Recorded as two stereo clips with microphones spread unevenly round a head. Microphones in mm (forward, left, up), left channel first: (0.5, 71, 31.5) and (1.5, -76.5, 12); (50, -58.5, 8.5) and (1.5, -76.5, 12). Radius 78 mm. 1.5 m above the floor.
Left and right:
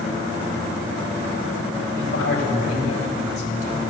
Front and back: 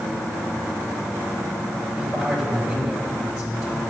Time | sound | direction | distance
1.9 | a man speaking | 100° left | 3.5 m